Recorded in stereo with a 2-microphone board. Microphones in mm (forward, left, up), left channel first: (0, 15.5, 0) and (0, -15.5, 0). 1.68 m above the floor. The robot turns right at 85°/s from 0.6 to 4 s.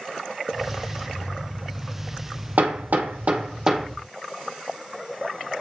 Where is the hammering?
65° right (ahead or behind), 2.0 m; by 3.9 s centre (ahead or behind), 2.0 m.